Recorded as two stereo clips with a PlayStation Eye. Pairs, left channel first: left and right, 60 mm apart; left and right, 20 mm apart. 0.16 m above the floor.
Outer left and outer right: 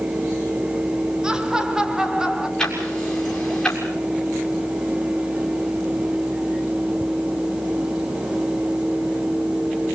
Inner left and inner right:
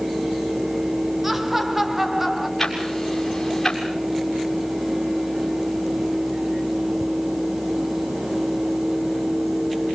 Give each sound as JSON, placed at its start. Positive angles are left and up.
{"t": 1.2, "sound": "laughter", "side_deg": -15, "distance_m": 2.0}
{"t": 2.6, "sound": "ticking", "side_deg": 10, "distance_m": 6.5}